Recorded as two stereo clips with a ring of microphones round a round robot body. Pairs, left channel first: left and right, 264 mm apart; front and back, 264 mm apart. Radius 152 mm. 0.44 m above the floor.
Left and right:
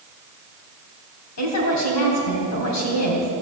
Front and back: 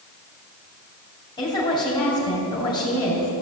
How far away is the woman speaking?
About 3.5 m.